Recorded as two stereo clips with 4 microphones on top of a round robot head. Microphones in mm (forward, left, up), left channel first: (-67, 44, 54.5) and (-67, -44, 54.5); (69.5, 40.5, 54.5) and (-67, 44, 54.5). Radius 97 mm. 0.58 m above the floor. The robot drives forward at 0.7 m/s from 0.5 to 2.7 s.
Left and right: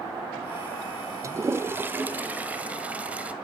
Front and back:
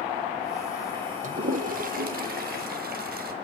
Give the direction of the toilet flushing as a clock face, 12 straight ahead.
5 o'clock.